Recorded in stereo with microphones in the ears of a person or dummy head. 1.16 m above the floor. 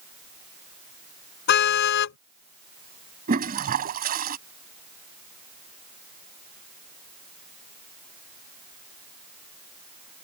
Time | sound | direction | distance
1.5 | a car horn | 65° left (ahead or behind) | ?
3.3 | a toilet flushing | 45° right (ahead or behind) | ?